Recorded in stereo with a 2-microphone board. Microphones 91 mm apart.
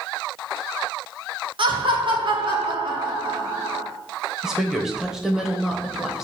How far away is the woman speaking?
About 1.1 m.